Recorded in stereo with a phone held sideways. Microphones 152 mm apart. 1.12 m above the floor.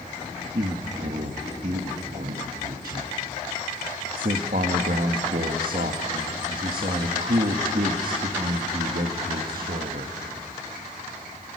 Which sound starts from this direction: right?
A man speaking, at 0.6 s.